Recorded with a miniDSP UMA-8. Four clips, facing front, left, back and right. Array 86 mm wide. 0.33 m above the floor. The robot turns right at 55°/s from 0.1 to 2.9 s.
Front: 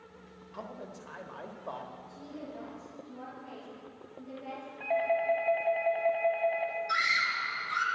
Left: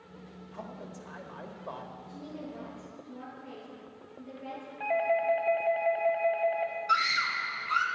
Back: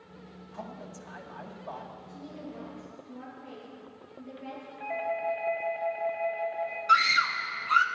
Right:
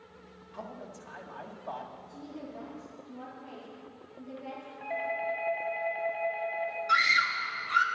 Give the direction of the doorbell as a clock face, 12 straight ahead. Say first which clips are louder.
Left 6 dB, front 3 dB; 9 o'clock.